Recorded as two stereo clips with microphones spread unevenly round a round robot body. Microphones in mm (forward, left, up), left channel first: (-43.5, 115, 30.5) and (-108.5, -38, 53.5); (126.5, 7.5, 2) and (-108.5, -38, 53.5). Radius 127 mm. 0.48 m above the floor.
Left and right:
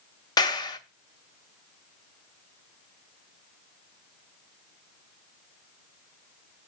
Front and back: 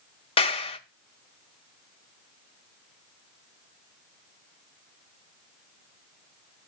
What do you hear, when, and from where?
0.4 s a clap: 35° left, 0.8 m